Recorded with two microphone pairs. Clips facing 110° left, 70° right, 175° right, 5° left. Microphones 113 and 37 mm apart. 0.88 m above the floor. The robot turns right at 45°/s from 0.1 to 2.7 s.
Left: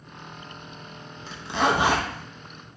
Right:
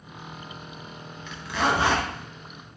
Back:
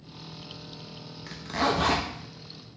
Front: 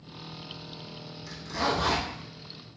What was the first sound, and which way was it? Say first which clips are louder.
A zipper: left 2 dB, back 2 dB; 150° left.